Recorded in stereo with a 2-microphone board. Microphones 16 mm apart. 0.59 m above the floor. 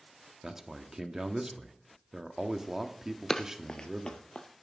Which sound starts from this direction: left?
Running footsteps, at 3.3 s.